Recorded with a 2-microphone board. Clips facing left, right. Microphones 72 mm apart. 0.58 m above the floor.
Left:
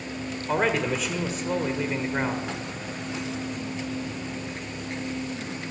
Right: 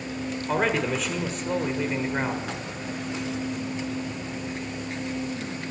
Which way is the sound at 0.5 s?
Centre (ahead or behind).